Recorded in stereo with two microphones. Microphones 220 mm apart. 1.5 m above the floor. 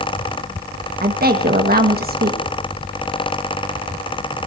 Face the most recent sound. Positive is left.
turn(degrees=-45)  # may be behind; listen again after turning